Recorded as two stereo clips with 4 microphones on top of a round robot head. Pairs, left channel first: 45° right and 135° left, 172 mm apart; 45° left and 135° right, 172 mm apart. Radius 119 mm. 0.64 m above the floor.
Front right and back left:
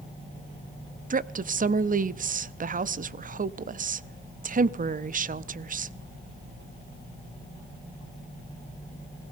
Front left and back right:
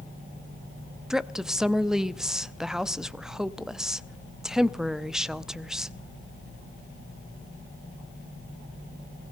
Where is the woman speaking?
135° left, 0.7 m.